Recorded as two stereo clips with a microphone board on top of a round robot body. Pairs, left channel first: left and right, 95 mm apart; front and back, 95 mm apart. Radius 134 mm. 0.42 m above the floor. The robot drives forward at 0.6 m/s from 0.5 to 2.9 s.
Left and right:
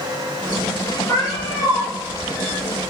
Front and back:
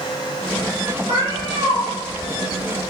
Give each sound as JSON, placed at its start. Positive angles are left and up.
{"t": 1.1, "sound": "a cat meowing", "azimuth_deg": 155, "distance_m": 1.8}